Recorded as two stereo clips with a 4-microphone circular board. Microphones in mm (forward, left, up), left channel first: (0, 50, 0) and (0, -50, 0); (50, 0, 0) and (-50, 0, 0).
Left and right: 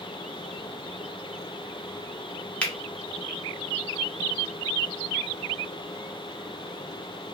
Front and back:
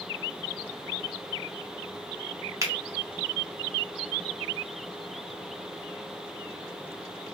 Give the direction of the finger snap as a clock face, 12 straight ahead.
7 o'clock.